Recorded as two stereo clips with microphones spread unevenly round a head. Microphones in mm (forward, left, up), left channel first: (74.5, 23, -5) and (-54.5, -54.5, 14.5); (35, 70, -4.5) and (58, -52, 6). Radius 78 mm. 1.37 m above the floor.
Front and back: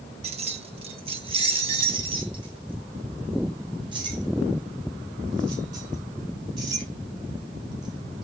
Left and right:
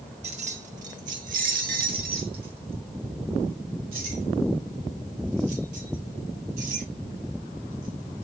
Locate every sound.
0.2 s keys jangling: 110° right, 1.1 m; by 8.2 s 90° right, 7 m